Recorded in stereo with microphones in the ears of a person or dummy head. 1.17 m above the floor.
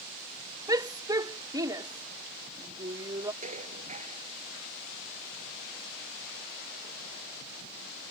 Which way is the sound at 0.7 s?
25° right (ahead or behind).